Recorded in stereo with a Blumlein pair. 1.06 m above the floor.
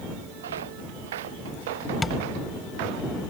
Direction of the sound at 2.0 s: 10° left.